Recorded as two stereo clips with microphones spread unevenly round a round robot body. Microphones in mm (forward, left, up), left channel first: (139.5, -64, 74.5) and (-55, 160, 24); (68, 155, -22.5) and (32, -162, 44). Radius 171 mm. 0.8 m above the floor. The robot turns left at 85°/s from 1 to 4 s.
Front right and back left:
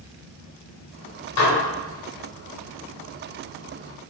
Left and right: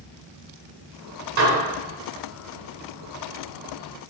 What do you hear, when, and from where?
1.4 s dishes clattering: 65° right, 2.0 m; by 1.6 s 80° right, 2.0 m